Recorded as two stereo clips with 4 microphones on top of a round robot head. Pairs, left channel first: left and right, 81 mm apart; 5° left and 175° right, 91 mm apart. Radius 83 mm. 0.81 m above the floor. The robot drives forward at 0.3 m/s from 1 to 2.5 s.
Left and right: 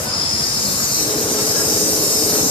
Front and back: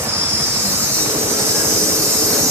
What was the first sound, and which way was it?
An insect, 125° left.